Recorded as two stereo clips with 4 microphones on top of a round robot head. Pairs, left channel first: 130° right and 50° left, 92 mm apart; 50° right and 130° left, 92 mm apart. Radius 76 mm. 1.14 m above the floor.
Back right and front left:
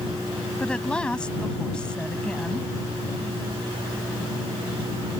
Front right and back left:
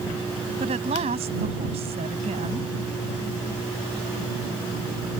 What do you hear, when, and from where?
0.6 s a woman speaking: 150° left